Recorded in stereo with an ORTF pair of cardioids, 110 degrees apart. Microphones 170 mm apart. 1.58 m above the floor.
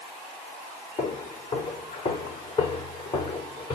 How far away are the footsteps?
About 5.5 m.